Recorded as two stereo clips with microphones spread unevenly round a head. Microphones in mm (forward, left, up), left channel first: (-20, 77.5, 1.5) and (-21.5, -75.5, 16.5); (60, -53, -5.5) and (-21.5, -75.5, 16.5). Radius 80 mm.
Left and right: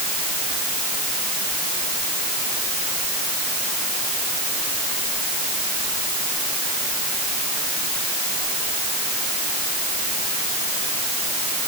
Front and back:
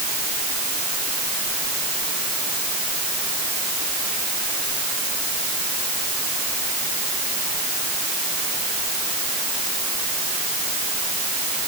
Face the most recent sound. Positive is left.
No sound to turn to.